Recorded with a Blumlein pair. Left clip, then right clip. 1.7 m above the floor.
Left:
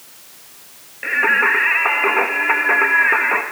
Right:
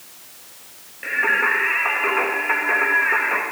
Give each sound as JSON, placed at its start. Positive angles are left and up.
{"t": 1.0, "sound": "singing", "azimuth_deg": 15, "distance_m": 2.5}